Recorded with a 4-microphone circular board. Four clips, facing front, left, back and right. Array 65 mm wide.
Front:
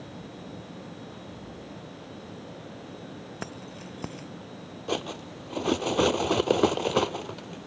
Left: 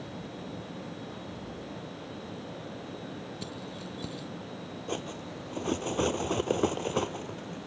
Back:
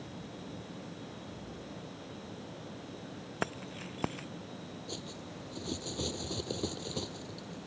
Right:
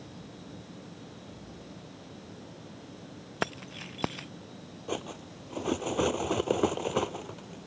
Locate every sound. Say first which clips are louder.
3.4 s keys jangling: right 4 dB, back 4 dB; 105° right
4.9 s cutlery clinking: right 1 dB, front 16 dB; 10° right